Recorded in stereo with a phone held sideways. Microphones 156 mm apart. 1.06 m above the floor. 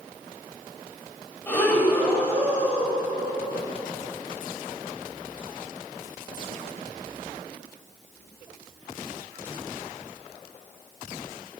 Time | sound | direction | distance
1.5 | breathing | 10° left (ahead or behind) | 5.5 m